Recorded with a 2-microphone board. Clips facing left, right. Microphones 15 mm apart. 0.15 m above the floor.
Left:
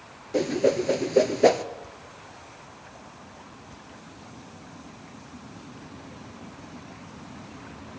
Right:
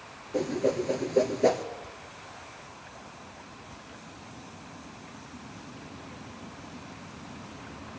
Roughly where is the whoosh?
Left.